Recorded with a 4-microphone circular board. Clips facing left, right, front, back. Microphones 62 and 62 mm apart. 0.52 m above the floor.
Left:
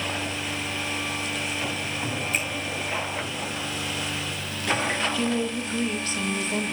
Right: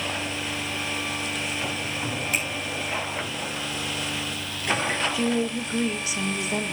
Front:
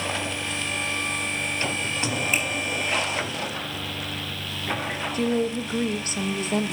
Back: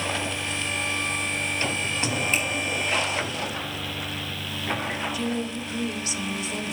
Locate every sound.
2.3 s a finger snap: 80° right, 4.5 m
5.1 s a woman speaking: 15° right, 0.9 m